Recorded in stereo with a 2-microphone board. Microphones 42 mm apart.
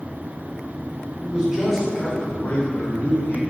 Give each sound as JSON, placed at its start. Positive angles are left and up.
{"t": 1.2, "sound": "a man speaking", "side_deg": -20, "distance_m": 2.5}